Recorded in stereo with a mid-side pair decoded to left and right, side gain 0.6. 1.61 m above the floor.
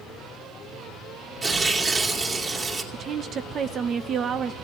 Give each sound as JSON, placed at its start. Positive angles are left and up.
{"t": 1.4, "sound": "tearing paper", "azimuth_deg": -25, "distance_m": 3.0}
{"t": 2.9, "sound": "a woman speaking", "azimuth_deg": -45, "distance_m": 0.7}